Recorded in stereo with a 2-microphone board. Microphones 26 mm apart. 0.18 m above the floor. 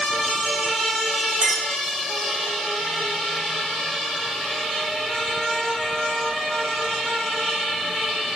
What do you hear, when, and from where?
1.4 s a clink: 40° right (ahead or behind), 1.8 m